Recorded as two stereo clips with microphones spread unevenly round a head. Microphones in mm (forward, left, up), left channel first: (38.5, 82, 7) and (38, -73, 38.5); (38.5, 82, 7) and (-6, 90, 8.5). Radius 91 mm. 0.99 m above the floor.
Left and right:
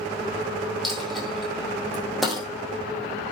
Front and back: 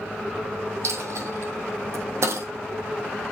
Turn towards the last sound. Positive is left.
turn(degrees=-175)